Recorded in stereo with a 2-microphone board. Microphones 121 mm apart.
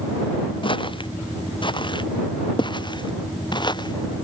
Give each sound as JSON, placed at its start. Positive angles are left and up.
{"t": 0.6, "sound": "footsteps", "side_deg": 45}